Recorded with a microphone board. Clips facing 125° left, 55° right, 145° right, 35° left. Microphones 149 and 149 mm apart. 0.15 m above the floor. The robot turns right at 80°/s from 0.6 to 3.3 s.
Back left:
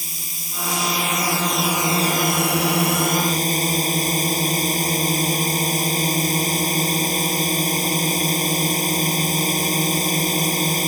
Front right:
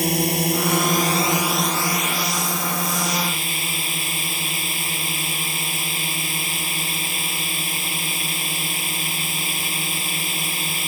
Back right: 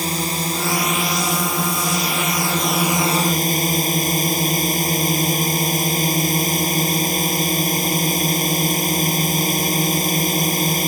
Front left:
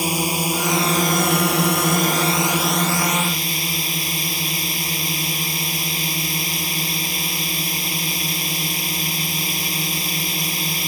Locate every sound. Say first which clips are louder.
0.0 s a drone: front right 21 dB, front left 1 dB; 45° right; by 10.9 s 170° left